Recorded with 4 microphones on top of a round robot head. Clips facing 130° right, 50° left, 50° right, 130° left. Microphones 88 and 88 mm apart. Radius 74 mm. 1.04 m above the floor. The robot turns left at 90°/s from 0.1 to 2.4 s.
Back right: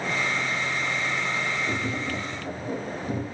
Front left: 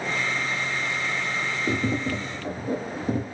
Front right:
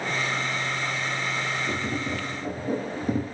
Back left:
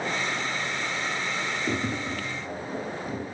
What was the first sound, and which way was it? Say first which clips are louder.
Tapping: front left 3 dB, even; 65° left.